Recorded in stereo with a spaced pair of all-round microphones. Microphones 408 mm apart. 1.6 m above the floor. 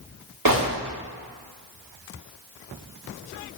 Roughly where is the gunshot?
Right.